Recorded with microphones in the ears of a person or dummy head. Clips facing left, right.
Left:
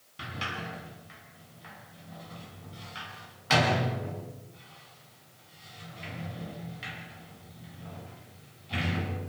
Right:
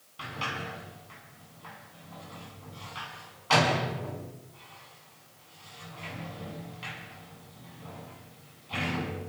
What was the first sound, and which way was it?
A sliding door, 20° left (ahead or behind).